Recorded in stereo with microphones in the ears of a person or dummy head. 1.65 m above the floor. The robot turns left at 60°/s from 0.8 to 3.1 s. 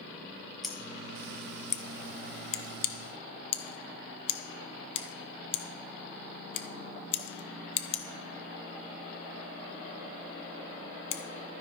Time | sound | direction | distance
0.6 | scissors | 5° left (ahead or behind) | 0.8 m